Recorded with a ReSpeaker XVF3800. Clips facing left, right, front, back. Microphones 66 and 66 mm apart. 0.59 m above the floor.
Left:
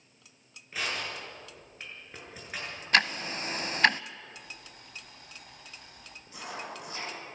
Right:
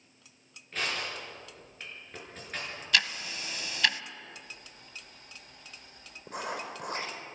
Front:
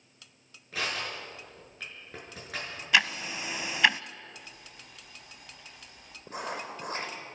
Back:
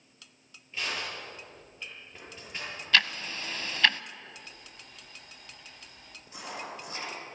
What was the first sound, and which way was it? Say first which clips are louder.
Crushing: even, front 1 dB; 10° left.